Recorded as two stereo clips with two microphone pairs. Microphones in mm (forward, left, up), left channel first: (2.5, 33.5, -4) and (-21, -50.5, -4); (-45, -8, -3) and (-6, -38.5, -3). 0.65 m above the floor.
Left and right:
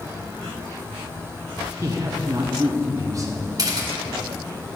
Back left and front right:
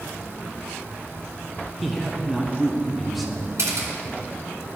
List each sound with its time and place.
1.8 s a man speaking: 125° right, 0.7 m
3.6 s a camera shutter: 65° right, 1.5 m